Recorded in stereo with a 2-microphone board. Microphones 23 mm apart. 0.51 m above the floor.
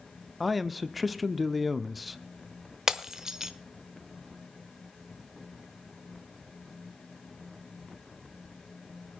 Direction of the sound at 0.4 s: Centre (ahead or behind).